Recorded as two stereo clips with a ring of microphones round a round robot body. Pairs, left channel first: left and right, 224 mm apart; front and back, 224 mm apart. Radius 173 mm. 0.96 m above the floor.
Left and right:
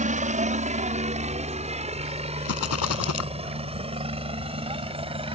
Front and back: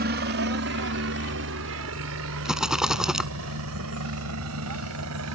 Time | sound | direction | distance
0.0 | a helicopter | 140° right | ?
2.5 | a rattle | 95° left | ?